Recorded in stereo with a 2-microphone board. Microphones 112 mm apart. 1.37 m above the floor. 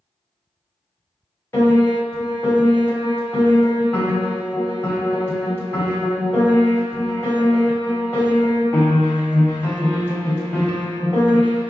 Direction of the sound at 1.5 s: 20° left (ahead or behind).